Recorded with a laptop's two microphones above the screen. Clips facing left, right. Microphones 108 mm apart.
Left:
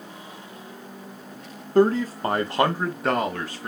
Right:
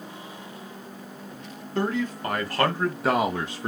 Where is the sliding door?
No sliding door in this recording.